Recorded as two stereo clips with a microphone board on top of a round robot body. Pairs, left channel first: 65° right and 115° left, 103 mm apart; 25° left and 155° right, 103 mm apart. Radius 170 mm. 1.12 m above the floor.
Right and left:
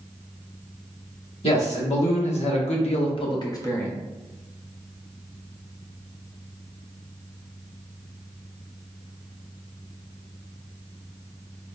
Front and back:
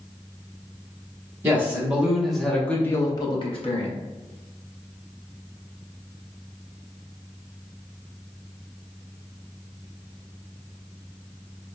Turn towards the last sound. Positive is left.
turn(degrees=5)